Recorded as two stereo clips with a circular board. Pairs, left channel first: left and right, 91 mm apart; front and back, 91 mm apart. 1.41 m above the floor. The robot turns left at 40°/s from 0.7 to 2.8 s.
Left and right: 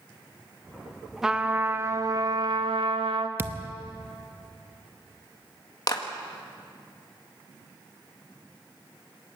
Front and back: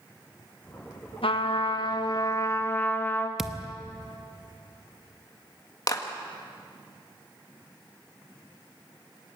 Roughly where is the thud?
Right.